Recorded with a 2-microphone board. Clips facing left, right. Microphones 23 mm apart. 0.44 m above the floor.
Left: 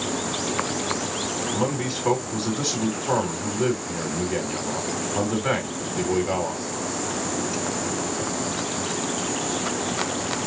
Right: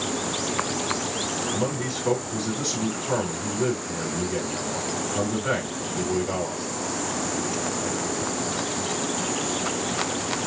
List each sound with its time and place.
1.5 s a man speaking: 35° left (ahead or behind), 4 m